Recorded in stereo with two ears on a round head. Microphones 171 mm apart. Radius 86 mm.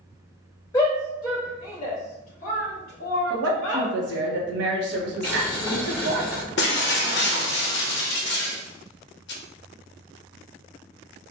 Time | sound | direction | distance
0.7 | a shout | 15° left (ahead or behind) | 1.4 m
3.3 | a woman speaking | 75° right (ahead or behind) | 1.0 m
5.2 | boiling | 10° left (ahead or behind) | 1.4 m
6.6 | breaking glass | 60° left (ahead or behind) | 0.8 m